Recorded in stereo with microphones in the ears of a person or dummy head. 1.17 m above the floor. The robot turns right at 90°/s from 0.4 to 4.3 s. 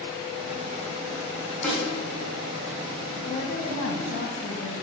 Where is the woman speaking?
30° left, 1.3 m; by 4.8 s 120° left, 1.3 m.